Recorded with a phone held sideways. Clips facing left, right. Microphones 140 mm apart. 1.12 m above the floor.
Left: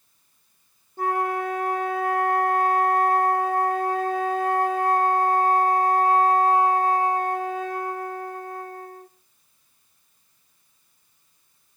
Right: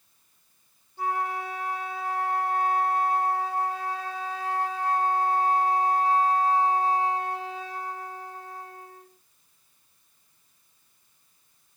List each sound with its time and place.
1.0 s a flute: 45° left (ahead or behind), 0.9 m